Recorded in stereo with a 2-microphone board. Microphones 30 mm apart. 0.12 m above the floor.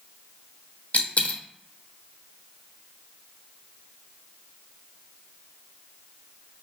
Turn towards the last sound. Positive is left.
turn(degrees=55)  # may be behind; listen again after turning